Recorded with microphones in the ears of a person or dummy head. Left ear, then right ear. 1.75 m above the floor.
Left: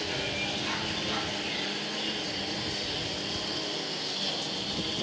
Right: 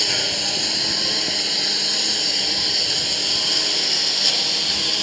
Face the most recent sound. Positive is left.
turn(degrees=-75)  # may be behind; listen again after turning